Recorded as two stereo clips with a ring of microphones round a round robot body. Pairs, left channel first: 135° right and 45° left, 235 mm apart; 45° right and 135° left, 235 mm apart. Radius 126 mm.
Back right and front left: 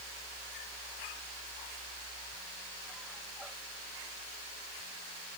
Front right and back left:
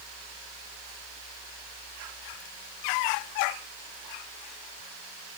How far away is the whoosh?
I don't hear a whoosh.